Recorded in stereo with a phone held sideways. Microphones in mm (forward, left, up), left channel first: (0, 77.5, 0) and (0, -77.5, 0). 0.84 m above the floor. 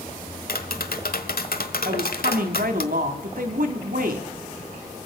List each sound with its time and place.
0.5 s tapping: 75° left (ahead or behind), 1.4 m
1.9 s a woman speaking: 70° right (ahead or behind), 1.9 m